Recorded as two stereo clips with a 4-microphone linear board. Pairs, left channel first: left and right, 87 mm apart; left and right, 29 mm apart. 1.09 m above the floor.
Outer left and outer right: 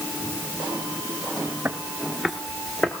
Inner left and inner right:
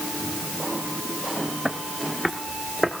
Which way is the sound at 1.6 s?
20° right (ahead or behind).